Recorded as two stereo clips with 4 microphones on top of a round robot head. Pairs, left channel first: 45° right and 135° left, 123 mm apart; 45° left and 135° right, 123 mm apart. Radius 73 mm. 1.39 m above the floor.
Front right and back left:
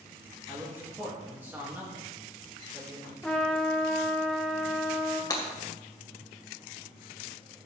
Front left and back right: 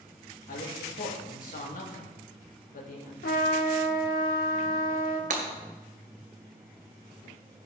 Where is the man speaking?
60° left, 3 m.